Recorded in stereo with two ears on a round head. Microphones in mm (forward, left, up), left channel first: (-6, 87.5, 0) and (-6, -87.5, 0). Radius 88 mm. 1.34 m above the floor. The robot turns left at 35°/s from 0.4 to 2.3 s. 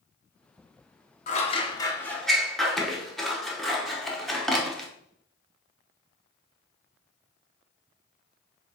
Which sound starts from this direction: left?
Scissors, at 1.3 s.